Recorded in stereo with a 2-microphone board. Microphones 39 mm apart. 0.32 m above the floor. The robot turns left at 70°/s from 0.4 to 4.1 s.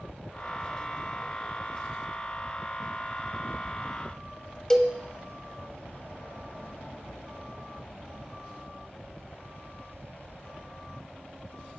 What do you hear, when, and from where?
4.7 s a cowbell: 15° left (ahead or behind), 0.6 m